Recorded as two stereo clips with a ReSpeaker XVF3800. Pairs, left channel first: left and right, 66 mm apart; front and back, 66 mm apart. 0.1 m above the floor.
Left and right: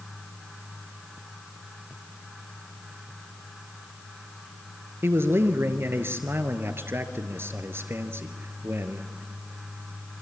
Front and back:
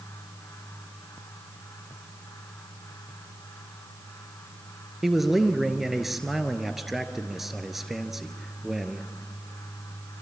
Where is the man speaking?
95° right, 1.4 m.